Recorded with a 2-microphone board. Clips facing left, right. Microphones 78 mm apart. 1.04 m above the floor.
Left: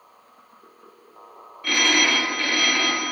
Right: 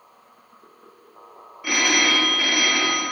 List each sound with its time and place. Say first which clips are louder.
1.6 s a phone ringing: even; 10° right (ahead or behind), 0.8 m